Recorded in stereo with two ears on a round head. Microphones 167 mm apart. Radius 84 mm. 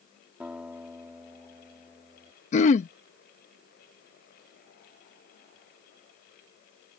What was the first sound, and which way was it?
A guitar, 5° right (ahead or behind).